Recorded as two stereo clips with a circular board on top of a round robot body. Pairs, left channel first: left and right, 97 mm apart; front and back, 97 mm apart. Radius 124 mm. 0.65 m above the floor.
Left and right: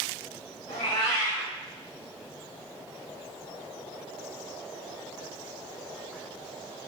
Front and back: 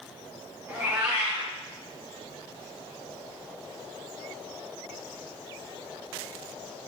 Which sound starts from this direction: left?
A cat meowing, at 0.7 s.